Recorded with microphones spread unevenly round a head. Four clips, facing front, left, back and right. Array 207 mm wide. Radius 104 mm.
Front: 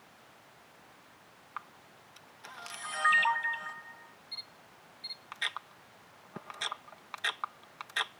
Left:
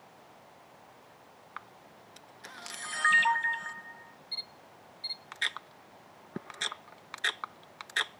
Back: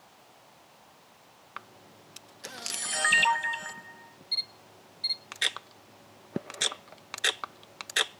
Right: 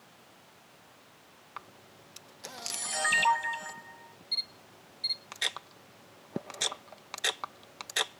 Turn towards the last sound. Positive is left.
turn(degrees=-165)